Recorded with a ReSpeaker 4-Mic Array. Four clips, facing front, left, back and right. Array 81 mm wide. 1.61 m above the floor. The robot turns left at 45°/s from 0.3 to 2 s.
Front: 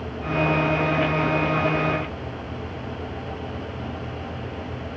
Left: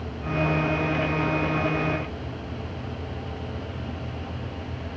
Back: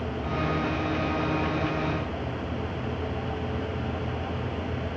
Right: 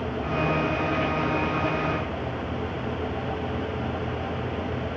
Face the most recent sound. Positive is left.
No sound to turn to.